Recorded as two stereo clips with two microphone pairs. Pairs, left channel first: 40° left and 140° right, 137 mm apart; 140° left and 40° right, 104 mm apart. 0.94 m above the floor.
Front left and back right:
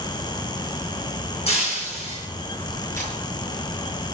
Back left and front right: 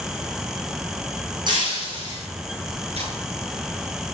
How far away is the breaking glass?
About 9.5 m.